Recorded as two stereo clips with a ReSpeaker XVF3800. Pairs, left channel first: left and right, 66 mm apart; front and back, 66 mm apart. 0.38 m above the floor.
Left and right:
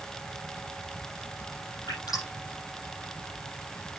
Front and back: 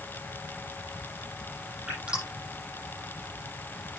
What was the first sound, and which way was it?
Dripping, 105° left.